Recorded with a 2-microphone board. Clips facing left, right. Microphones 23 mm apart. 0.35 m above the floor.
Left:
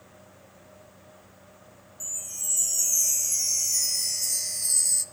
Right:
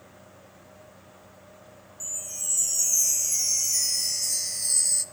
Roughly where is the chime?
Centre.